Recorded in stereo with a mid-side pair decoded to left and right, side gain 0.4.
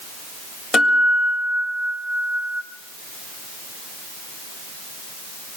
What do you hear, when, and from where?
0.7 s a guitar: 60° left, 6.5 m